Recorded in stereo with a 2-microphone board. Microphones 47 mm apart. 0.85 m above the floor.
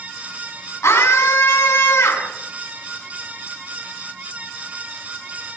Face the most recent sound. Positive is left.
turn(degrees=85)